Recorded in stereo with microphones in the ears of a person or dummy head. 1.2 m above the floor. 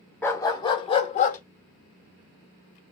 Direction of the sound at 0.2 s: 10° left (ahead or behind).